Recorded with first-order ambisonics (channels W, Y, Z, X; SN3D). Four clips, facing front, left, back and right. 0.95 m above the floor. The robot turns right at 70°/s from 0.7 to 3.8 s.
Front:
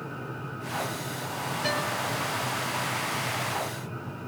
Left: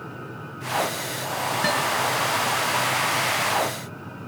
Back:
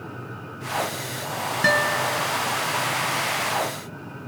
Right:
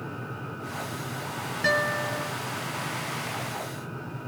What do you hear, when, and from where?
1.6 s a guitar: 165° left, 2.5 m; by 2.3 s 145° right, 2.5 m